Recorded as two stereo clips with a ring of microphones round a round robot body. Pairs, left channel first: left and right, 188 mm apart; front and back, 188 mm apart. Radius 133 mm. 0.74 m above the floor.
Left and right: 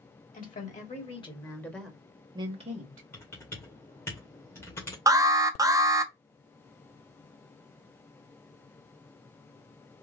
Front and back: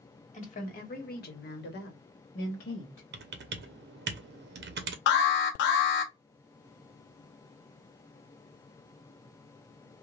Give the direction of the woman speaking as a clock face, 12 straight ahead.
10 o'clock.